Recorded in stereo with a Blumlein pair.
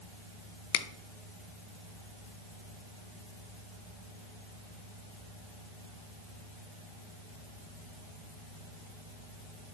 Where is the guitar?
I don't hear a guitar.